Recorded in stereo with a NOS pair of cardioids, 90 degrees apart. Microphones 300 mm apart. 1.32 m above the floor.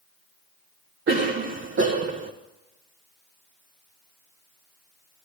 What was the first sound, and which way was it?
A cough, 40° right.